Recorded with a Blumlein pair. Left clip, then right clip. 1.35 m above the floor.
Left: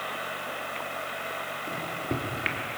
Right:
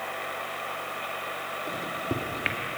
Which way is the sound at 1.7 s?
5° right.